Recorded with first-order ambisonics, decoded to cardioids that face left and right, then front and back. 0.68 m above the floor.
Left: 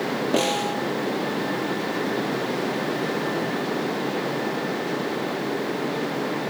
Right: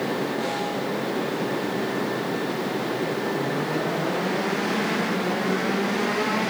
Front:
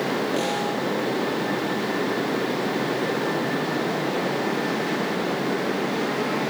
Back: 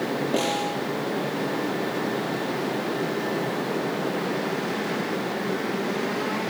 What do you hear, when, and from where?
0.3 s a snare drum: 100° left, 3 m